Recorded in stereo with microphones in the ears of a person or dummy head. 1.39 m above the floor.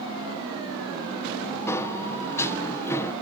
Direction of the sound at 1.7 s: 15° left (ahead or behind).